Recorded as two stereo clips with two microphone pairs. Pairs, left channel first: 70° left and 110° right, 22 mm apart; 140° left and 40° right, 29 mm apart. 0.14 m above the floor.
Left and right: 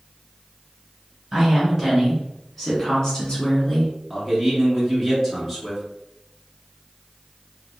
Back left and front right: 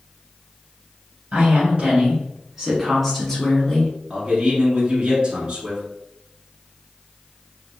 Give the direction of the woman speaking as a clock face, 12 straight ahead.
1 o'clock.